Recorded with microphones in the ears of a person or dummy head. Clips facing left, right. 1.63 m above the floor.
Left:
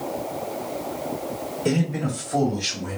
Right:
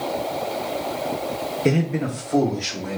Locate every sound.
1.6 s a man speaking: 35° right (ahead or behind), 0.8 m; by 3.0 s 75° right (ahead or behind), 1.7 m